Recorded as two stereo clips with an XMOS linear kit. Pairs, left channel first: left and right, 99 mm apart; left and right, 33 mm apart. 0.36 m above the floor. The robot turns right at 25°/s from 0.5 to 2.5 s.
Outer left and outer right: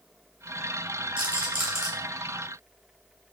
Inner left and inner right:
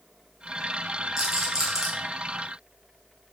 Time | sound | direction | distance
1.2 | a rattle | 15° right (ahead or behind) | 1.2 m